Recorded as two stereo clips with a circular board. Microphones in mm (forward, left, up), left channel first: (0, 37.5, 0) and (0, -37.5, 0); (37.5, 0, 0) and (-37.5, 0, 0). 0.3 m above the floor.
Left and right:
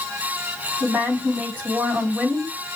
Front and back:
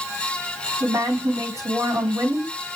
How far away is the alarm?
I don't hear an alarm.